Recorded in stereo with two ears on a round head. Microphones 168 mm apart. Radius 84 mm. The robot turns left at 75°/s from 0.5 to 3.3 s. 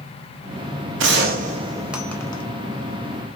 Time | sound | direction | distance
1.0 | a gunshot | 105° right | 0.6 m